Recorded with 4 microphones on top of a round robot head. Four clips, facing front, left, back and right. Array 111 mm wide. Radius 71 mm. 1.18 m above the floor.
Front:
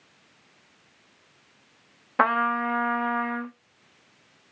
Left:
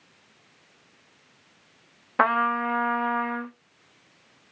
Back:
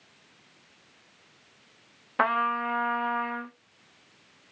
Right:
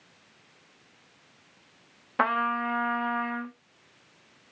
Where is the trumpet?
50° left, 0.7 m.